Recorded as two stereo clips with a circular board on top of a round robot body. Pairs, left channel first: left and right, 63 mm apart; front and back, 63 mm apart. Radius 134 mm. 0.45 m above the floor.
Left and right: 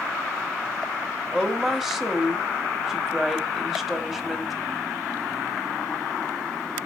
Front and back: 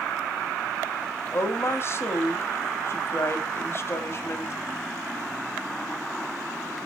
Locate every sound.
1.3 s a woman speaking: 5° right, 1.7 m